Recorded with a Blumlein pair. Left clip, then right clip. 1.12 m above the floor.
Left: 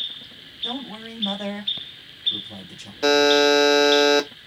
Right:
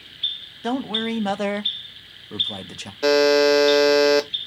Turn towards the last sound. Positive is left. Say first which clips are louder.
# even
turn(degrees=5)